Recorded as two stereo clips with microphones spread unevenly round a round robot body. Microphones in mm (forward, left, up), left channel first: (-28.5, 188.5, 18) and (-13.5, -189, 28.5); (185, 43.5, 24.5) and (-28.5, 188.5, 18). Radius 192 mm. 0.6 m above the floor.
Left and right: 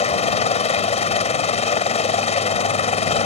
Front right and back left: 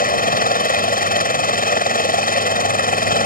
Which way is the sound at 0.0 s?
20° left.